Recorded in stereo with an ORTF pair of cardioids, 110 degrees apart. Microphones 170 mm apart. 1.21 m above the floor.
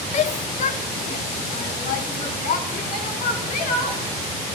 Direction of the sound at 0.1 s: 40° left.